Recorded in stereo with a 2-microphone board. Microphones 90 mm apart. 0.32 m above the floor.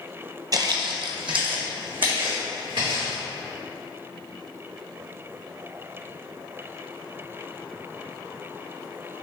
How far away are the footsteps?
About 0.5 m.